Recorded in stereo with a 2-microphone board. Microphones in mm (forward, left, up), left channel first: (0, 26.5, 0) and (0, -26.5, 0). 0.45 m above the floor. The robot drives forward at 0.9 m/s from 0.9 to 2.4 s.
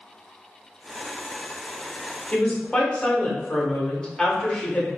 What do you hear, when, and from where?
2.3 s a woman speaking: 20° left (ahead or behind), 0.9 m